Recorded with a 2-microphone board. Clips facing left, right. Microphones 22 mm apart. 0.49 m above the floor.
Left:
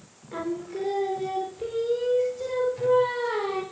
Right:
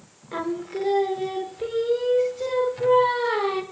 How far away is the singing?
About 0.7 m.